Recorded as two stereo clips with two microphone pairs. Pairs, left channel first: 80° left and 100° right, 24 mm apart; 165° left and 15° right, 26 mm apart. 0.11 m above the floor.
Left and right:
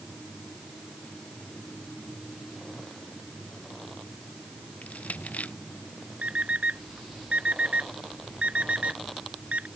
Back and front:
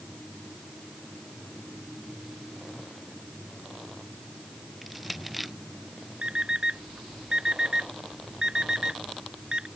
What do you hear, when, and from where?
4.8 s crushing: 75° left
6.2 s an alarm clock: 70° right